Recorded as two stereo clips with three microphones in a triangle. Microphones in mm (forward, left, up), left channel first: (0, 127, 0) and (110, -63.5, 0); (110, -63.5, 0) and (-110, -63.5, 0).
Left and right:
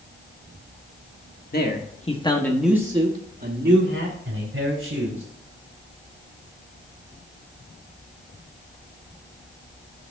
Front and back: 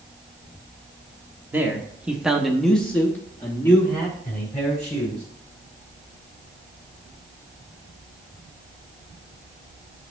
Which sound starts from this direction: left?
A man speaking, at 1.5 s.